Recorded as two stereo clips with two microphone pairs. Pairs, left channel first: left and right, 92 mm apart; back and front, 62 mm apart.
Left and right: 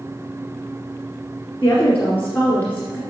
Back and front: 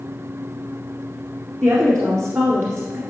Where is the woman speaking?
30° left, 1.8 m.